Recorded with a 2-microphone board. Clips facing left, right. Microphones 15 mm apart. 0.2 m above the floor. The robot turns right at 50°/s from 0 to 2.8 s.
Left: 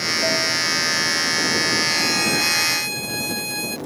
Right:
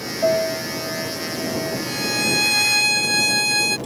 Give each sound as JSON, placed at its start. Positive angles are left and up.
{"t": 0.2, "sound": "a piano", "azimuth_deg": -140}
{"t": 1.9, "sound": "a violin", "azimuth_deg": 165}